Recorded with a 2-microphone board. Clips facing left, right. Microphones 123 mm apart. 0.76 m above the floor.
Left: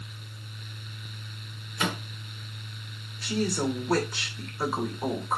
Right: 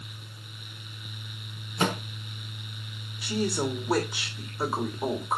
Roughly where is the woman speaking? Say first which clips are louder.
Left 1 dB; centre.